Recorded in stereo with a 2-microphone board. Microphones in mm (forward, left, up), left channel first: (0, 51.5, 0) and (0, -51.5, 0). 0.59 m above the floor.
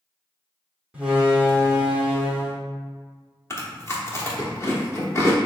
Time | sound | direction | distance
0.9 | a door slam | 10° right (ahead or behind) | 1.2 m
3.5 | chewing | 30° left (ahead or behind) | 1.0 m